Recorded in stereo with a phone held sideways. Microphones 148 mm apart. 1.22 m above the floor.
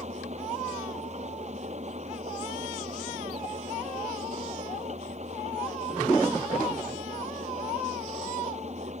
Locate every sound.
0.0 s an engine running: 50° right (ahead or behind)